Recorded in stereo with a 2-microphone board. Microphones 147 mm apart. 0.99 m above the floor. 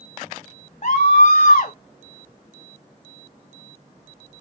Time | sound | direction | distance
0.8 | a scream | 50° left (ahead or behind) | 0.7 m